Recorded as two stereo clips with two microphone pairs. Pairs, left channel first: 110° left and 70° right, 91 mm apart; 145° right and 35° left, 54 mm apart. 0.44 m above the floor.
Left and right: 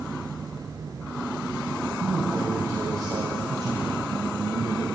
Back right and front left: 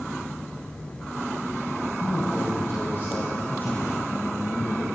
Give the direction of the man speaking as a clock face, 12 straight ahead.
4 o'clock.